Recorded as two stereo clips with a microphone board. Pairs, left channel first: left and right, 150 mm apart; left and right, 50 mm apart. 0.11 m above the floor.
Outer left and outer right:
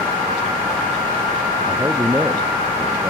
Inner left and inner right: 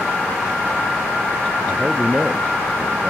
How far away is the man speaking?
About 1.5 m.